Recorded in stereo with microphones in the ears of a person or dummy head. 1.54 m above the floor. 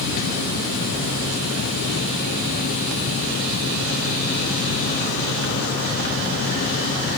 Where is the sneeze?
I don't hear a sneeze.